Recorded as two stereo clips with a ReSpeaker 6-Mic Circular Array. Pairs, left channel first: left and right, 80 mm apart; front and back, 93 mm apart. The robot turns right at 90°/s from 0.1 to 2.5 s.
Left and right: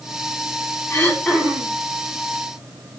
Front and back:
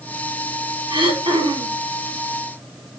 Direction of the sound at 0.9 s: 150° left.